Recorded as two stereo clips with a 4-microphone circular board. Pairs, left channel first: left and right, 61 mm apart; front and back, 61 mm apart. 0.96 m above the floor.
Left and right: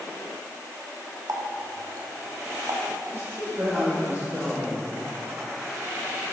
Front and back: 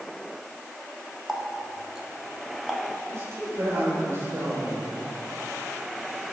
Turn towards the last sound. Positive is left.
turn(degrees=-135)